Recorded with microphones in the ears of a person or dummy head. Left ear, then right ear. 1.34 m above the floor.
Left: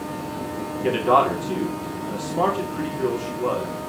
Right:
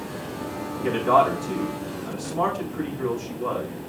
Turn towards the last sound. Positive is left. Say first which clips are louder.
# left 1 dB
turn(degrees=5)  # may be behind; listen again after turning